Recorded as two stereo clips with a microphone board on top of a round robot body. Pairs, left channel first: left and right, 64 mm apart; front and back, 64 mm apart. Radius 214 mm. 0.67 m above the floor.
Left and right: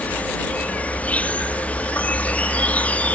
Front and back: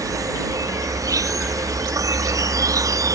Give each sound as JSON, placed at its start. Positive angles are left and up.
{"t": 0.0, "sound": "an insect", "azimuth_deg": 155}